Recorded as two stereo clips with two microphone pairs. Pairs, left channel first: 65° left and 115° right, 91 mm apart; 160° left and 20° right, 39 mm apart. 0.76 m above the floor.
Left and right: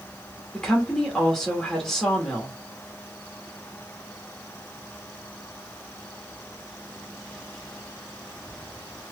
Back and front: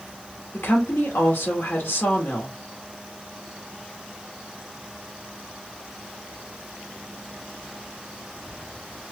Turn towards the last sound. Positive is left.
turn(degrees=150)